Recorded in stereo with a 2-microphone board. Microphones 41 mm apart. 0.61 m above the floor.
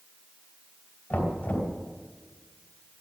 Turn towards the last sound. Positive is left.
turn(degrees=55)  # may be behind; listen again after turning